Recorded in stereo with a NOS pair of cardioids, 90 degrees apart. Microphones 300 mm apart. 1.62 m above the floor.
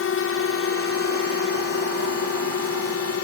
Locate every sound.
0.0 s a drone: 50° left; by 3.2 s 60° left